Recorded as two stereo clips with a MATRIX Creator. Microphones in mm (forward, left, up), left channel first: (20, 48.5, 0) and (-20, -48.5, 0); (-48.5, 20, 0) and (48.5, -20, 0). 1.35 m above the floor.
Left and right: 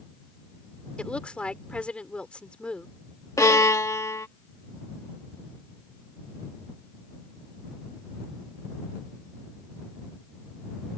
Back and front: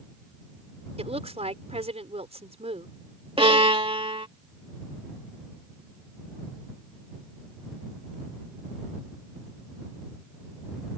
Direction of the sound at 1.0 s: 15° right.